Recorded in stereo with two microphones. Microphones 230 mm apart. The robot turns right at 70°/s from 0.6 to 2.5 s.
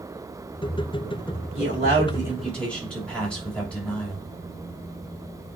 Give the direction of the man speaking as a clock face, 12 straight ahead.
2 o'clock.